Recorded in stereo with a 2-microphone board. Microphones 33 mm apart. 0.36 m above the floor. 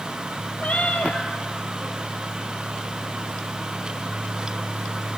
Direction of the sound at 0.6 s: 40° left (ahead or behind).